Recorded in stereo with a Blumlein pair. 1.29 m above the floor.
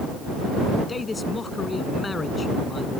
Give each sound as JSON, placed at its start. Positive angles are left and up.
{"t": 0.9, "sound": "a man speaking", "azimuth_deg": 15}